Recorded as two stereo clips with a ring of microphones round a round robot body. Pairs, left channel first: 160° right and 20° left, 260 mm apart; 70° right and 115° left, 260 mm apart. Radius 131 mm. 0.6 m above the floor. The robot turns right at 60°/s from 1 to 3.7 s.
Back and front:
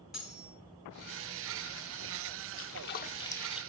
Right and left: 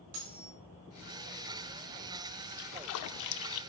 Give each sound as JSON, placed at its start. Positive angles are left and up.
{"t": 0.1, "sound": "cutlery clinking", "azimuth_deg": 110, "distance_m": 4.5}
{"t": 2.6, "sound": "a splash", "azimuth_deg": -125, "distance_m": 0.6}